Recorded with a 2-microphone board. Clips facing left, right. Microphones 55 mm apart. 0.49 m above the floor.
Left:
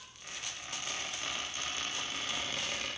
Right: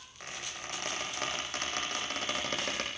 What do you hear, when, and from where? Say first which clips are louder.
0.2 s a squeak: right 3 dB; 65° right (ahead or behind), 10 m